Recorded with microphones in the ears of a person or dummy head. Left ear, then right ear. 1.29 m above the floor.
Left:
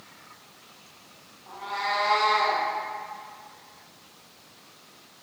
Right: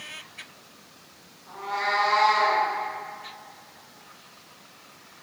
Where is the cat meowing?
50° left (ahead or behind), 1.1 m; by 2.6 s 45° left (ahead or behind), 1.9 m.